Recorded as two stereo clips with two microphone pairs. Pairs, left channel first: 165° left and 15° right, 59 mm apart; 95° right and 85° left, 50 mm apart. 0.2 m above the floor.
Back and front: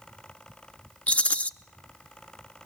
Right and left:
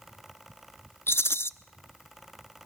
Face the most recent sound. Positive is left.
turn(degrees=-130)